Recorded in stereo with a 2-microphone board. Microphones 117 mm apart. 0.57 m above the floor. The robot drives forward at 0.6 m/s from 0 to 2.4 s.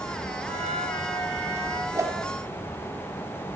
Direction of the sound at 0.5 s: 75° right (ahead or behind).